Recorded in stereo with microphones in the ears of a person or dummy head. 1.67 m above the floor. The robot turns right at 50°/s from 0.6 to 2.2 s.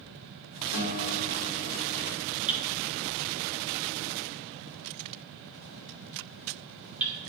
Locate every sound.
0.7 s a guitar: 90° left, 3 m; by 2.1 s 160° left, 3 m
2.5 s hammering: 5° right (ahead or behind), 2 m